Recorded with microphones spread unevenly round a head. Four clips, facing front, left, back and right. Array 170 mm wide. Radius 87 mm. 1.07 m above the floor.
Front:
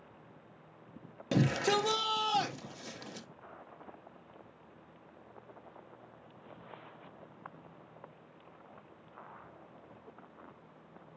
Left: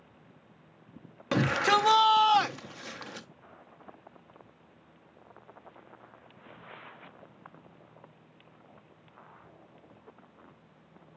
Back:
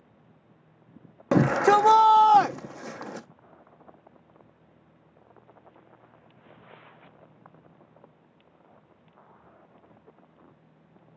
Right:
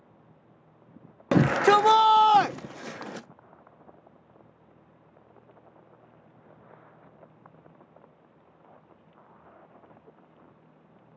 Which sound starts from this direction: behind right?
A shout, at 1.3 s.